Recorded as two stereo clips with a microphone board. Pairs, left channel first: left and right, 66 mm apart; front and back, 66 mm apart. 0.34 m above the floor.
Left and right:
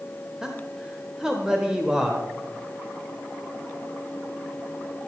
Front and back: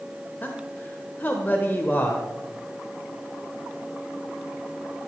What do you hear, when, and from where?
0.4 s a man speaking: 20° right, 1.1 m